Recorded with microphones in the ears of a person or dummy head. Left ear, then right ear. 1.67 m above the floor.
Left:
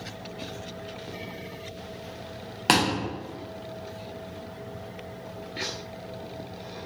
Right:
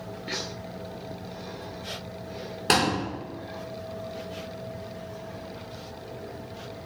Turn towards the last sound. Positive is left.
turn(degrees=25)  # may be behind; listen again after turning